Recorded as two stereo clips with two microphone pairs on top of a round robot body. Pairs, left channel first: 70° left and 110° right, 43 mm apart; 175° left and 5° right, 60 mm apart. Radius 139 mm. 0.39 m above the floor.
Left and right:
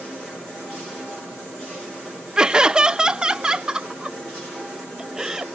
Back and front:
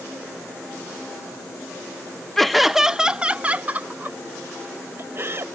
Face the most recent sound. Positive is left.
turn(degrees=-40)